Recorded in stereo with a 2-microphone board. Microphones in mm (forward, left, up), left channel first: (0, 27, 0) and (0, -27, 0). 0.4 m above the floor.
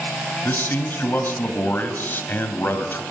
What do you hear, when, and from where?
0.5 s a man speaking: 40° left (ahead or behind), 2.5 m